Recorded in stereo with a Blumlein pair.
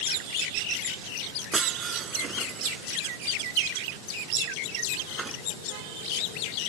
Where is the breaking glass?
20° right.